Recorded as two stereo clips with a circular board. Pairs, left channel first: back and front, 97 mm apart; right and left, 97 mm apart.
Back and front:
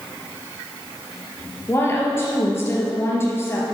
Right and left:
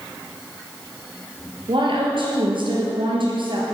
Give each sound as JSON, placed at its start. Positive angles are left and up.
{"t": 1.7, "sound": "a woman speaking", "azimuth_deg": 115, "distance_m": 3.5}